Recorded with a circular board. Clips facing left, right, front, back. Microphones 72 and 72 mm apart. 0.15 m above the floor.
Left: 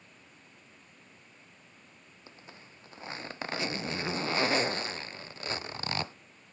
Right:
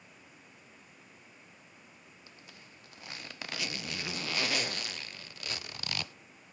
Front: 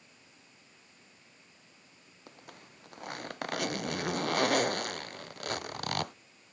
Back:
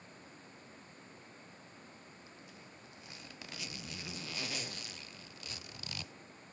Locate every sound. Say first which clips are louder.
2.3 s a zipper: left 6 dB, front 2 dB; 30° left